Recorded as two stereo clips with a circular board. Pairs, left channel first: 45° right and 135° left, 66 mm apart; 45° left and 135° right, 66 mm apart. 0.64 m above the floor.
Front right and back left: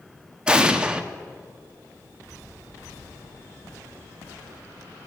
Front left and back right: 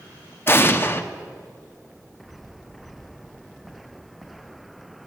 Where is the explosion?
65° left, 0.8 m.